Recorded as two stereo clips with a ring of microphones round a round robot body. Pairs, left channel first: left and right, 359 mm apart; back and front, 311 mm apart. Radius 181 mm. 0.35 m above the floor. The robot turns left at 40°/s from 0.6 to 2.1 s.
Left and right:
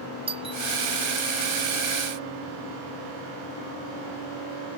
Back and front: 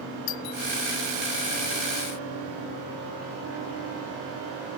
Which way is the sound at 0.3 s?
165° right.